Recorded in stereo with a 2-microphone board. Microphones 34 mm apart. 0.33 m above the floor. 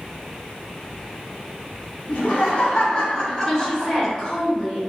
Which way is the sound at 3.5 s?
25° left (ahead or behind).